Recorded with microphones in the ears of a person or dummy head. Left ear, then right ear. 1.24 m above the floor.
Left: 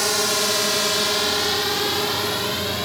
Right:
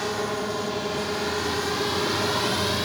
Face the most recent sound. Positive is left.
turn(degrees=5)  # may be behind; listen again after turning